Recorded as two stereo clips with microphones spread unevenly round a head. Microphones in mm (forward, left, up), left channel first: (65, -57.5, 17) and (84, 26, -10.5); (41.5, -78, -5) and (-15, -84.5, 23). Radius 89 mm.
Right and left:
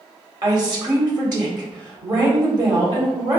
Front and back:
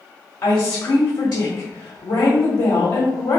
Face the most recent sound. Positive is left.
turn(degrees=35)